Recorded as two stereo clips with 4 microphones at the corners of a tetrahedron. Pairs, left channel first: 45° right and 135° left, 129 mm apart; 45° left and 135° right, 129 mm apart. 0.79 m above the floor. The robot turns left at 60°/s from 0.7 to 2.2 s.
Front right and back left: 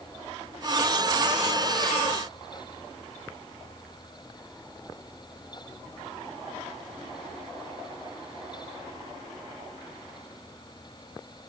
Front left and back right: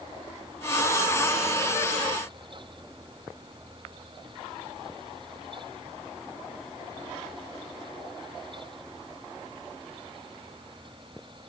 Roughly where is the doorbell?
No doorbell in this recording.